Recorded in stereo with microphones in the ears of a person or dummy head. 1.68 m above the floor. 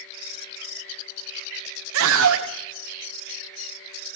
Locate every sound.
1.9 s a scream: 75° right (ahead or behind), 1.2 m